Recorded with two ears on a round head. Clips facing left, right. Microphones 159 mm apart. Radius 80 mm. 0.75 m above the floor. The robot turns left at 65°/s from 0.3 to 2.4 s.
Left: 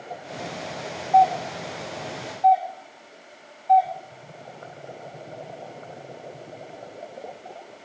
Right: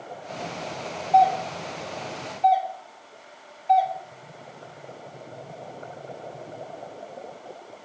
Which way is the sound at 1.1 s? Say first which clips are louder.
Left 1 dB; 25° right (ahead or behind).